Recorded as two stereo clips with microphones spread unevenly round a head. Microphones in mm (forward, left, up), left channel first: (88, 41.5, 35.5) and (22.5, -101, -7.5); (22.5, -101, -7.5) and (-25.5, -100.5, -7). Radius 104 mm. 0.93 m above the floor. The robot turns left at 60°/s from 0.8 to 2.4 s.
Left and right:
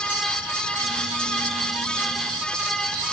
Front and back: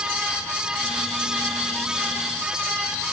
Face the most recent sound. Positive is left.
No sound to turn to.